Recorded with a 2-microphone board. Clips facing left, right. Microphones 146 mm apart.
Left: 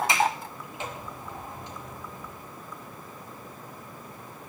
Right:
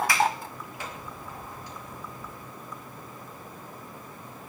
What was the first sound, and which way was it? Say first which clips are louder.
A sliding door: even; 20° left (ahead or behind).